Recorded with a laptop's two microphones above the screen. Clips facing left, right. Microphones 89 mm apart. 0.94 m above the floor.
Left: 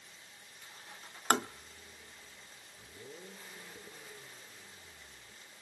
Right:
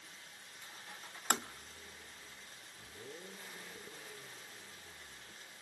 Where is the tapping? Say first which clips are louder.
Left 7 dB; 65° left (ahead or behind), 0.5 m.